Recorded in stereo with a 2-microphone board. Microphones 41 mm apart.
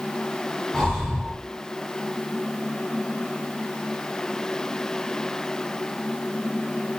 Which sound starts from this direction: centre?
Breathing, at 0.7 s.